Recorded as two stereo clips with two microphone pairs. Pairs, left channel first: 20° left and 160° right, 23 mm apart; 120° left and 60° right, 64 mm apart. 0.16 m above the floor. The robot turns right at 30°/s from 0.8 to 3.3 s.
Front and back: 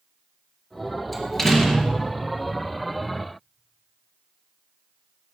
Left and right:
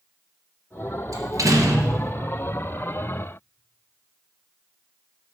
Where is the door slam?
60° right, 2 m; by 2.1 s 30° right, 2 m.